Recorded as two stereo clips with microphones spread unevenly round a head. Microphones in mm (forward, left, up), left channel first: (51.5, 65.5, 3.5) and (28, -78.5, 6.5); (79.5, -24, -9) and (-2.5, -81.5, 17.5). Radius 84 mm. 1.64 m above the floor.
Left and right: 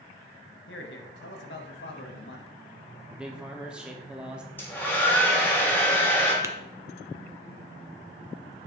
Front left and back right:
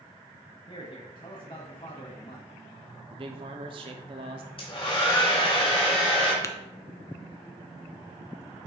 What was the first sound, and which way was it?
A man speaking, 95° left.